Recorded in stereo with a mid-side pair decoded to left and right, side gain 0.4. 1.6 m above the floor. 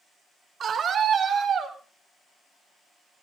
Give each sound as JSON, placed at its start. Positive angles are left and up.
{"t": 0.6, "sound": "a scream", "azimuth_deg": -60, "distance_m": 5.0}